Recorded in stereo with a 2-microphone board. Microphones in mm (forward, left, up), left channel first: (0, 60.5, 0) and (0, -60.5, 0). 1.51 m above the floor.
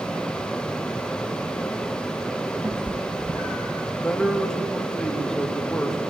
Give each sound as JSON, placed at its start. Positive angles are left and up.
{"t": 2.6, "sound": "a cat meowing", "side_deg": -40, "distance_m": 2.5}
{"t": 4.0, "sound": "a man speaking", "side_deg": 5, "distance_m": 2.5}